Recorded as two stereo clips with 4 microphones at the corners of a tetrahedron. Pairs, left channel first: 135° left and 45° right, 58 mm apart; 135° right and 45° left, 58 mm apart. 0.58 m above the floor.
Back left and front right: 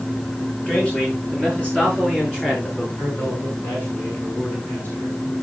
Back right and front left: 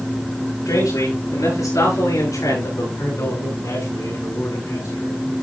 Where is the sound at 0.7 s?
155° right, 10 m; by 2.9 s 150° right, 8.5 m.